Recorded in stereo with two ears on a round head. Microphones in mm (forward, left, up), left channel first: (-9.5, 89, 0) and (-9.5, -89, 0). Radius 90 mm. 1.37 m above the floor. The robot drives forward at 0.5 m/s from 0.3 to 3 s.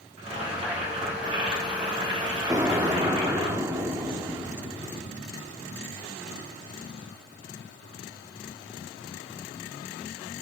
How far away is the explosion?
About 0.9 m.